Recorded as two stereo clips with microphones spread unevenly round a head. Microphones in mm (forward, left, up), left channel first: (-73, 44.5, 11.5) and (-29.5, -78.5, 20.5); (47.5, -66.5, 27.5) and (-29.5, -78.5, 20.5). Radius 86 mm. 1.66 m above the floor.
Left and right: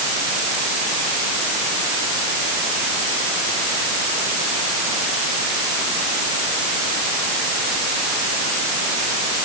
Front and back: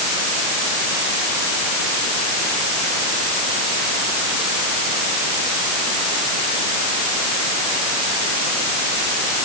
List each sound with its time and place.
Only background noise.